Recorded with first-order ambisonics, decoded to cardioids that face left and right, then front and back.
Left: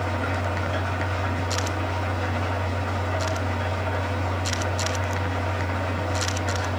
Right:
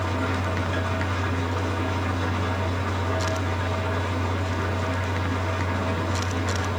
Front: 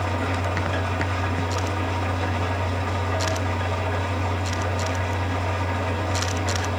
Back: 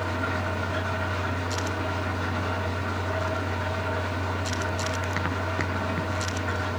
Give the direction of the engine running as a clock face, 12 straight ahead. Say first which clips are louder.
Even, front 2 dB; 1 o'clock.